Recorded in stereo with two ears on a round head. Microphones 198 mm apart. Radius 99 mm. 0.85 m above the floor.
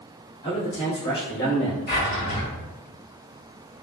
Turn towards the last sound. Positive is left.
turn(degrees=50)  # may be behind; listen again after turning